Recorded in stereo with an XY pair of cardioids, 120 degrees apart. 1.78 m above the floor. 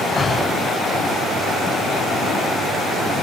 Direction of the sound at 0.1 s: 25° left.